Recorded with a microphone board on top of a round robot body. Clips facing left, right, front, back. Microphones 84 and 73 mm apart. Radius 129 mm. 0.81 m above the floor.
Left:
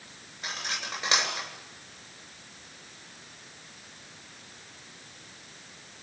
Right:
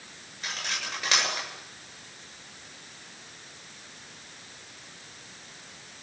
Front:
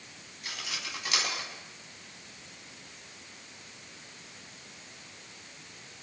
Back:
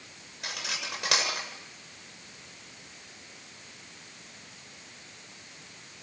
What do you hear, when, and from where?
0.4 s cutlery clinking: 165° left, 7.5 m